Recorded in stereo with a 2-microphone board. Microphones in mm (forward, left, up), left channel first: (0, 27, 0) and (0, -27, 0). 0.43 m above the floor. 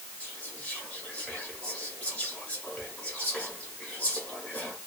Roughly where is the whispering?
Left.